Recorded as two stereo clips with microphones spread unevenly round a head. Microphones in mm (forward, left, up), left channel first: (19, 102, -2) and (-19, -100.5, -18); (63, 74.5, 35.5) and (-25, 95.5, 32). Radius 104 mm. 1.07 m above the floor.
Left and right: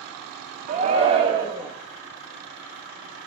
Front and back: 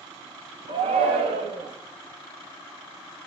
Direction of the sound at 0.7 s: 155° right.